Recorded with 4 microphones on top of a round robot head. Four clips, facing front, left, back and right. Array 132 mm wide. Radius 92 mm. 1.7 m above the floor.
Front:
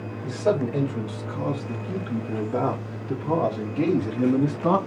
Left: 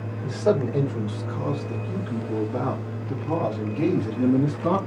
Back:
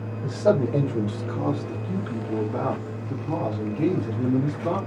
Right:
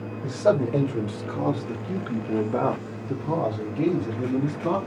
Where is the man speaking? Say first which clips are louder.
Right 1 dB, back 2 dB; 130° right, 1.5 m; by 4.8 s 10° left, 1.4 m.